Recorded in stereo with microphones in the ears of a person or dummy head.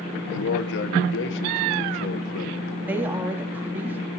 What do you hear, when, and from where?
0.3 s a man speaking: 75° left (ahead or behind), 1.8 m
2.8 s a woman speaking: 5° right (ahead or behind), 4 m